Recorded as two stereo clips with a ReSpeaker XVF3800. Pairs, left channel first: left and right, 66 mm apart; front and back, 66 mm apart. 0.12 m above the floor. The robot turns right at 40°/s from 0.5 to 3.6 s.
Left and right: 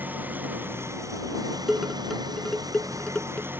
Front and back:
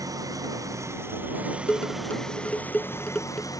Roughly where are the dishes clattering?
Ahead.